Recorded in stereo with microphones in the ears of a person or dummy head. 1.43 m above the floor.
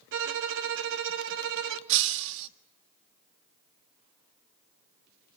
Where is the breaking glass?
65° right (ahead or behind), 1.5 m.